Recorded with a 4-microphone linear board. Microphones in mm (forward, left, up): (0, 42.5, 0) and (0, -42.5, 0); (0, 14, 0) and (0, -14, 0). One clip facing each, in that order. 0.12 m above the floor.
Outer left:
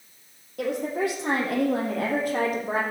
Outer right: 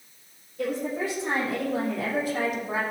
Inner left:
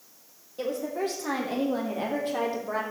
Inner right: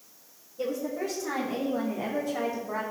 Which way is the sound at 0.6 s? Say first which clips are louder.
Outer left 2 dB, inner left 1 dB; 75° left (ahead or behind).